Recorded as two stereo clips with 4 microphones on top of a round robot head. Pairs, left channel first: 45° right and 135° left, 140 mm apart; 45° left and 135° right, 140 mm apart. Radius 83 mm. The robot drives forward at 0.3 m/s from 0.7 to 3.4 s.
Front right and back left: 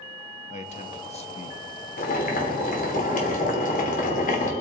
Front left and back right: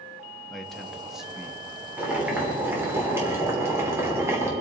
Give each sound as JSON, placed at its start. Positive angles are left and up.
{"t": 0.5, "sound": "a man speaking", "azimuth_deg": -45, "distance_m": 1.2}
{"t": 2.0, "sound": "boiling", "azimuth_deg": -55, "distance_m": 2.5}